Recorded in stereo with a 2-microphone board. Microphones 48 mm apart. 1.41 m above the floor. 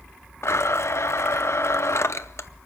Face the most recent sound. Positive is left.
turn(degrees=65)  # may be behind; listen again after turning